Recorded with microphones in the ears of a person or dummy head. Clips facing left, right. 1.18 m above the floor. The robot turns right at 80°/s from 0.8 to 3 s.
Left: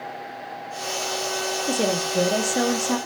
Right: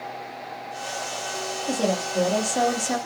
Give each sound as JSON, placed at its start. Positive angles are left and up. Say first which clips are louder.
{"t": 1.7, "sound": "a woman speaking", "louder": "even", "azimuth_deg": 95, "distance_m": 0.5}